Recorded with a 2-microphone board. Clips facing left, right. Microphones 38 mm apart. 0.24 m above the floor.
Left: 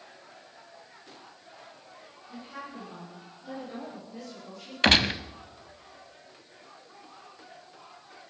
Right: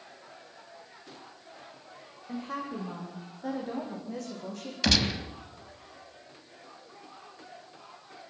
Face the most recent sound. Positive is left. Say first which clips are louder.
# left 5 dB
turn(degrees=35)  # may be behind; listen again after turning